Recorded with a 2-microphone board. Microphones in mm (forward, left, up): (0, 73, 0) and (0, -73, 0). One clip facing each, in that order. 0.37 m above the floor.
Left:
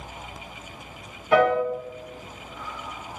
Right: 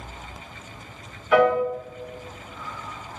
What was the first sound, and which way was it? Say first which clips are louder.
A piano: right 1 dB; 35° left (ahead or behind).